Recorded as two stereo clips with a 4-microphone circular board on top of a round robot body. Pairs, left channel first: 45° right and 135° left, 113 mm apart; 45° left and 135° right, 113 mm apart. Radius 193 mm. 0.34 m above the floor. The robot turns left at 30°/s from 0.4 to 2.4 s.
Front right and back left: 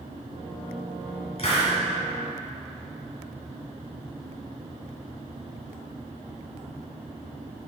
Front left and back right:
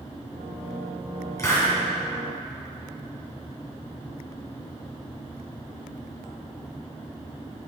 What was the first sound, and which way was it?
A hiss, 15° right.